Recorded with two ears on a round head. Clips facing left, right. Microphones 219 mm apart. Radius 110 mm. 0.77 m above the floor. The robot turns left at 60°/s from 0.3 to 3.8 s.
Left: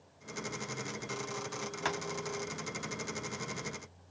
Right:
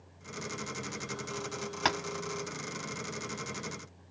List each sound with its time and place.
1.9 s tapping: 60° right (ahead or behind), 0.7 m; by 2.0 s 50° right (ahead or behind), 0.7 m